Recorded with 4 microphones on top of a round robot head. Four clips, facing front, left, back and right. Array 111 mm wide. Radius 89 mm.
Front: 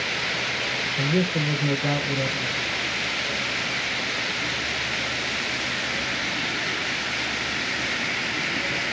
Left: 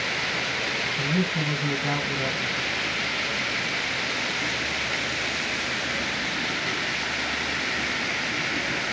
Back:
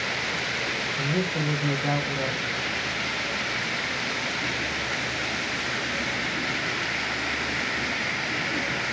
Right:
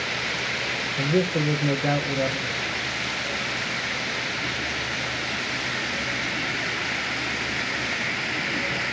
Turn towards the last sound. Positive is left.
turn(degrees=-75)